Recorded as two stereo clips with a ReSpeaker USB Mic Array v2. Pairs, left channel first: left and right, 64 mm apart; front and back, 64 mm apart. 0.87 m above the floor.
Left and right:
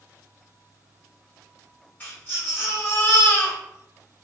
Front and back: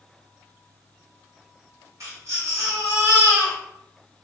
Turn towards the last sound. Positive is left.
turn(degrees=150)